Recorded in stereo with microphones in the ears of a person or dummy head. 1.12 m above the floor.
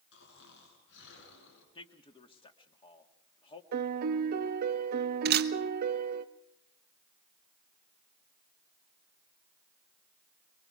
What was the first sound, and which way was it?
Snoring, 75° left (ahead or behind).